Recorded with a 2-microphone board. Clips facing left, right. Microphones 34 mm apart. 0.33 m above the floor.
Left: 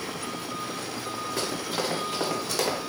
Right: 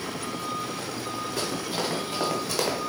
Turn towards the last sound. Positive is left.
turn(degrees=-5)  # may be behind; listen again after turning